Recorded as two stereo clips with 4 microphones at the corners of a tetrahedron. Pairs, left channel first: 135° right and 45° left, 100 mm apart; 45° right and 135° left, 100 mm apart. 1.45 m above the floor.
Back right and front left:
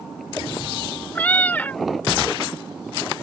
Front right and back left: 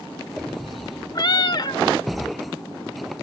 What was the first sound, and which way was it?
A cat meowing, 65° right.